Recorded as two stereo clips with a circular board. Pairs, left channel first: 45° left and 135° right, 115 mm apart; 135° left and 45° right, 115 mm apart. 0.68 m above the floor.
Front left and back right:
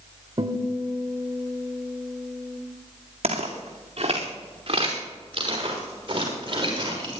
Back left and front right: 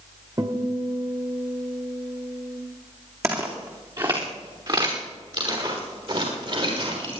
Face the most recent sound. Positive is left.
turn(degrees=-85)